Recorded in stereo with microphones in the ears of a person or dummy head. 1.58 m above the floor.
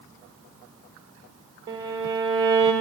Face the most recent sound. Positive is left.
turn(degrees=-15)  # may be behind; listen again after turning